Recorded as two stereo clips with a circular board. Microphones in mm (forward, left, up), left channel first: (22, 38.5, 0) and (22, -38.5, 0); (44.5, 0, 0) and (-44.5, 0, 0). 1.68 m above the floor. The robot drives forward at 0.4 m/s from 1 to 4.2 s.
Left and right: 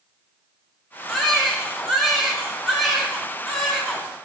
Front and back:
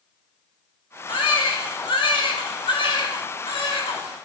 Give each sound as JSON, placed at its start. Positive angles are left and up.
{"t": 1.1, "sound": "a baby crying", "azimuth_deg": 5, "distance_m": 4.0}